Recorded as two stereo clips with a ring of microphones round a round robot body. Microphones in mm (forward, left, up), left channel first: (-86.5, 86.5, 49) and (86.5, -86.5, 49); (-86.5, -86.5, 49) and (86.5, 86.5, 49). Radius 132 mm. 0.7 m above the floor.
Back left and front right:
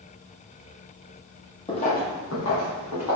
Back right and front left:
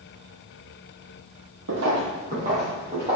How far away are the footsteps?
About 1.1 m.